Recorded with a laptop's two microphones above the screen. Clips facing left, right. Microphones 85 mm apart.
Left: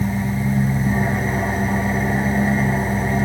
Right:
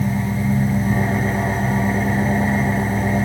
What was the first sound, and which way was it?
An engine running, 10° left (ahead or behind).